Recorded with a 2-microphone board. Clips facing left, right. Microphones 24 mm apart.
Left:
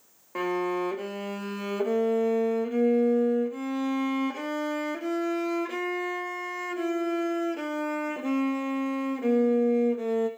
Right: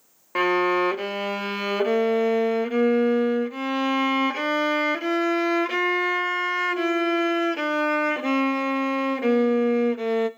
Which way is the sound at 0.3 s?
50° right (ahead or behind).